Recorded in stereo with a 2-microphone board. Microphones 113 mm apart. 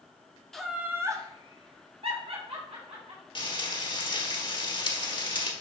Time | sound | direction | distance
0.5 | laughter | 5° left (ahead or behind) | 1.0 m
3.4 | frying | 45° left (ahead or behind) | 1.3 m